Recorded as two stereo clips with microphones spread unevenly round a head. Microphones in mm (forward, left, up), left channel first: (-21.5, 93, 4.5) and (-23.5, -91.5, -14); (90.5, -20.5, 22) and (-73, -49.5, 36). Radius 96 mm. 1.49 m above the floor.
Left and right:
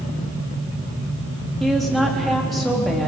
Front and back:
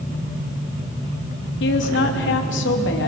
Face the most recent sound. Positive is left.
turn(degrees=0)